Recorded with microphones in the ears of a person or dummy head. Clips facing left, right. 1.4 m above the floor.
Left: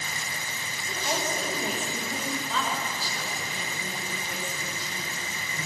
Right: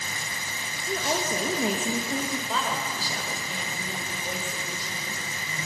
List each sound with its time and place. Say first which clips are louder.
0.9 s a woman speaking: right 3 dB; 60° right (ahead or behind), 2.5 m
2.5 s a woman speaking: right 1 dB; 40° right (ahead or behind), 5 m